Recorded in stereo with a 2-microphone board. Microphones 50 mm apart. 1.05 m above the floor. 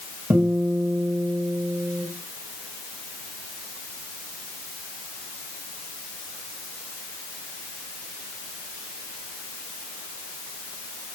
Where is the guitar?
85° right, 5 m.